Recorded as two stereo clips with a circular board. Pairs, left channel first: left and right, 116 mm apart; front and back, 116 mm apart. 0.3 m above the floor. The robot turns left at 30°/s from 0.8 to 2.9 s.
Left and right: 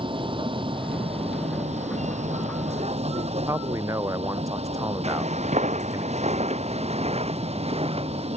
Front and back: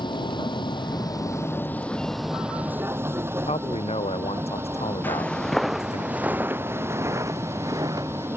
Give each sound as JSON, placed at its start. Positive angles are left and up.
{"t": 0.0, "sound": "a vehicle", "azimuth_deg": -50}
{"t": 3.5, "sound": "a man speaking", "azimuth_deg": -30}
{"t": 5.0, "sound": "footsteps", "azimuth_deg": -75}